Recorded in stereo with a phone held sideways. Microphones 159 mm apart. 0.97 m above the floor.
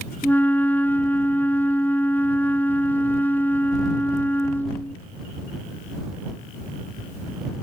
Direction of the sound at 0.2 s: 10° left (ahead or behind).